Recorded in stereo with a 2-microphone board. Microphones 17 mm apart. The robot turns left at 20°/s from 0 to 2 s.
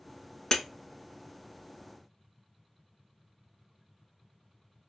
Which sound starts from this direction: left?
Breaking glass, at 0.5 s.